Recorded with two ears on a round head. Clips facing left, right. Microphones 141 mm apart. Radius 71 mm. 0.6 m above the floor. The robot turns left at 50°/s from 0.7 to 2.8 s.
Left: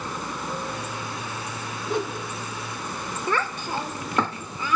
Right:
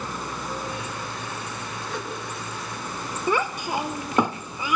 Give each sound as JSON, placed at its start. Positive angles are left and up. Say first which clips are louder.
{"t": 1.9, "sound": "a whoosh", "louder": "left 7 dB", "side_deg": 20, "distance_m": 3.5}
{"t": 3.3, "sound": "a child speaking", "louder": "right 3 dB", "side_deg": -10, "distance_m": 0.8}